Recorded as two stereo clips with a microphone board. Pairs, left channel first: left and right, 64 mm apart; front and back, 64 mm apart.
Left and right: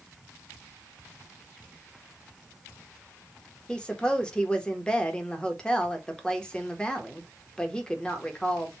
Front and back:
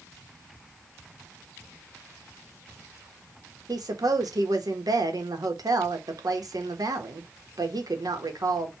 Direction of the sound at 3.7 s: 165° left.